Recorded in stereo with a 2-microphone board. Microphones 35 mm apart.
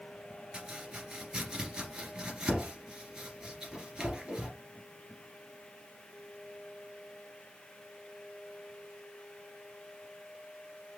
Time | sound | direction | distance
0.5 | chopping | 25° right (ahead or behind) | 2.5 m